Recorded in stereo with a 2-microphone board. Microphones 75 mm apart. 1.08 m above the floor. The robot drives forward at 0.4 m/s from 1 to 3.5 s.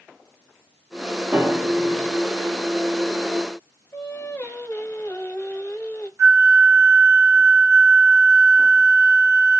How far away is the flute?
About 1.5 m.